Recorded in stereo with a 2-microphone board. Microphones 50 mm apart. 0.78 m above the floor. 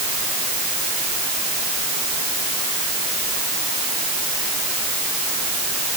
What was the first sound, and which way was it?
Only background noise.